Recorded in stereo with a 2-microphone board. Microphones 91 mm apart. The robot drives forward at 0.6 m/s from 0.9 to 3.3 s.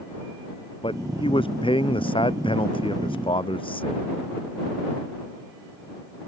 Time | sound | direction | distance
0.8 | a man speaking | 85° left | ?